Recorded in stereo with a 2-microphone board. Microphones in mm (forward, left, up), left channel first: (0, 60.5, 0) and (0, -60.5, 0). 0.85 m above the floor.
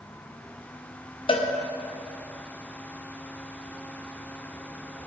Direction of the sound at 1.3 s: 45° left (ahead or behind).